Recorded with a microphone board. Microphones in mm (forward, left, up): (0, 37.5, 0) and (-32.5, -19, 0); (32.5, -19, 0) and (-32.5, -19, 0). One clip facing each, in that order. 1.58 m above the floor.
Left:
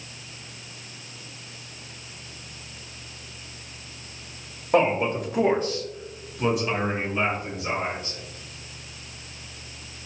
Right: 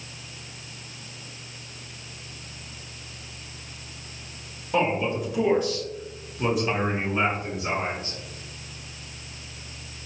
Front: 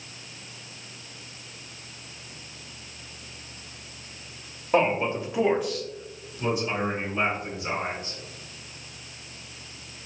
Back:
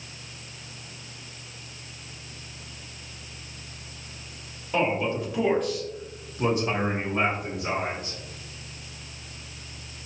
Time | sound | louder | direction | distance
4.7 | a man speaking | left 3 dB, front 2 dB | 40° left | 0.8 m